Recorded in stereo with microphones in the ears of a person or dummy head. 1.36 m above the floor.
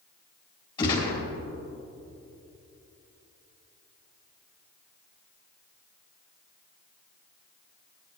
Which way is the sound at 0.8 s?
25° left (ahead or behind).